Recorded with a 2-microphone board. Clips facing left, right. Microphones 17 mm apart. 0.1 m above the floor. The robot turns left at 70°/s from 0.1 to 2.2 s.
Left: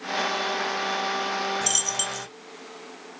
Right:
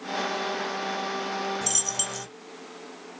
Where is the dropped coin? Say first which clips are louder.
Left 3 dB; 25° left (ahead or behind), 1.4 m; by 2.3 s 10° right (ahead or behind), 1.4 m.